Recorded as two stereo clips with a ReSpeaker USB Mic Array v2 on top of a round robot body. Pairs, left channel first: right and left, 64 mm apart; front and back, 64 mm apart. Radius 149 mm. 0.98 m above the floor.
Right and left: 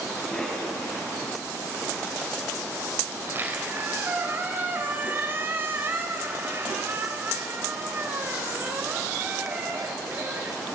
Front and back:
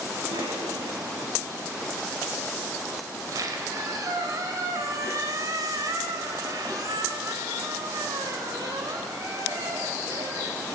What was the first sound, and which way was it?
A cough, 165° right.